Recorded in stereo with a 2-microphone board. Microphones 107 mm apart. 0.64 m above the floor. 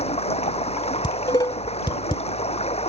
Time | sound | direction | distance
0.0 | running water | 80° left | ?
1.0 | dishes clattering | 45° left (ahead or behind) | ?